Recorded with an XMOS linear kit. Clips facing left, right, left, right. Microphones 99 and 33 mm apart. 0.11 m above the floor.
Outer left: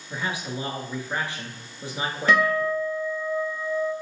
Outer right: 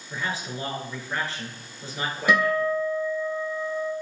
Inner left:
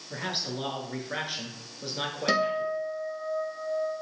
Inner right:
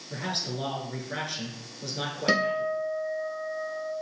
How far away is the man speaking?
About 1.2 m.